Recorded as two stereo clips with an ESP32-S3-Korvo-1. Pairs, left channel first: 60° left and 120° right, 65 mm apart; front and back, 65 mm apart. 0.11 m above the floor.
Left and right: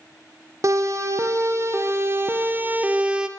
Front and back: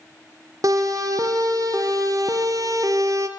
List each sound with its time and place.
0.6 s a siren: 155° right, 4 m; by 3.3 s 165° left, 2 m